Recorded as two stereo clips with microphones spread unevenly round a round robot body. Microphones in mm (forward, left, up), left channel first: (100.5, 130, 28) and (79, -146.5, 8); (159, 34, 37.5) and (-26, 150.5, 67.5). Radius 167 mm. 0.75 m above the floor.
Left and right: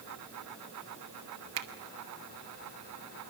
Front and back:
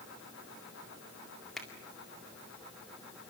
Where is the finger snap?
115° right, 2 m.